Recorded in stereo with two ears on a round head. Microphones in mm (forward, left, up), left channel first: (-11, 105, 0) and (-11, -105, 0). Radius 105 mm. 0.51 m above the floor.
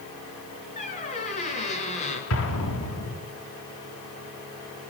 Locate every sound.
0.8 s a squeak: 30° left (ahead or behind), 6 m
2.3 s an explosion: 60° left (ahead or behind), 7 m